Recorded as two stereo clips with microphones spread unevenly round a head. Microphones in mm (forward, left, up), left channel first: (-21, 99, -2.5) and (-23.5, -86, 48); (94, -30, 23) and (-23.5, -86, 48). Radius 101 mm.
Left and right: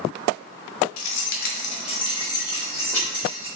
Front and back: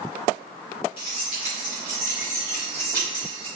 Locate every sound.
1.0 s keys jangling: 95° left, 0.6 m; by 3.5 s 175° left, 2 m